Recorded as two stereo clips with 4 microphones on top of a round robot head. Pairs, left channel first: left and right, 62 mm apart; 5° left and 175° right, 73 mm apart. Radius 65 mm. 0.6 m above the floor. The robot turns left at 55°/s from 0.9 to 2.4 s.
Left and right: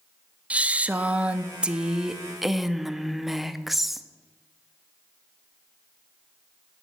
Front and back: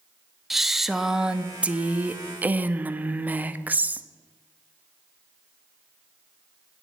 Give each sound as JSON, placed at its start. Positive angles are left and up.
{"t": 0.5, "sound": "a woman speaking", "azimuth_deg": -90, "distance_m": 0.7}